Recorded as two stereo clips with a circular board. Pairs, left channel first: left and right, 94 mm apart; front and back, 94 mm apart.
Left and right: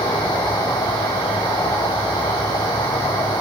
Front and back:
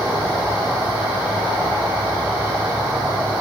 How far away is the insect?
About 3.5 m.